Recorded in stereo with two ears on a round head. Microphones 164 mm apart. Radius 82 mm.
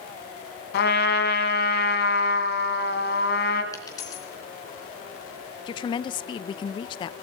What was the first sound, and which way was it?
A trumpet, 60° left (ahead or behind).